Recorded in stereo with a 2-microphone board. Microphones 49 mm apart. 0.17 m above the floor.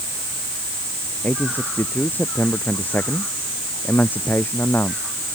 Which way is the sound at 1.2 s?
40° left (ahead or behind).